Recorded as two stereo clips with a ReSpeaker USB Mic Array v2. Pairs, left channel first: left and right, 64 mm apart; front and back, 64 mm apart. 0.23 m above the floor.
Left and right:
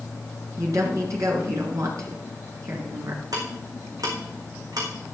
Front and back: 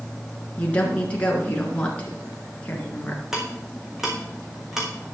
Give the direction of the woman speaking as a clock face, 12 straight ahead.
2 o'clock.